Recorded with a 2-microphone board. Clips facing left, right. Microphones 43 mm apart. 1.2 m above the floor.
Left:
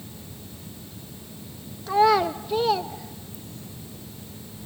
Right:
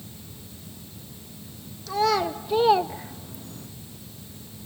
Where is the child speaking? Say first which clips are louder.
Left 4 dB; 25° left (ahead or behind), 0.6 m; by 3.7 s 60° right (ahead or behind), 0.7 m.